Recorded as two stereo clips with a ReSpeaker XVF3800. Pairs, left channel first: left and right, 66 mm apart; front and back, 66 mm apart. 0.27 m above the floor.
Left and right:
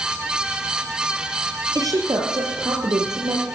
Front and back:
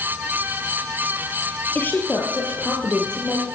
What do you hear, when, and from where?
1.8 s a woman speaking: 65° right, 5 m; by 3.5 s 80° right, 6 m